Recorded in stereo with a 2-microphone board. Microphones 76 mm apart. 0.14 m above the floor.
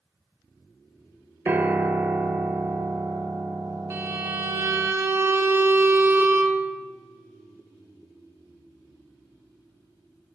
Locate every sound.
1.4 s a piano: 25° right (ahead or behind), 0.5 m
3.9 s a violin: 35° right (ahead or behind), 0.6 m